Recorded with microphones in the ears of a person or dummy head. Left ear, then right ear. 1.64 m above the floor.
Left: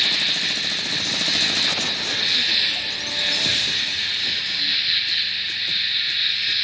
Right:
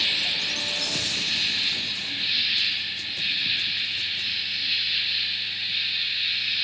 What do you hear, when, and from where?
0.0 s an insect: 70° left (ahead or behind), 4 m